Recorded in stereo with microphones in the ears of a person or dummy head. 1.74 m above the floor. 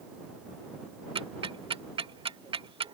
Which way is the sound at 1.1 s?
25° right (ahead or behind).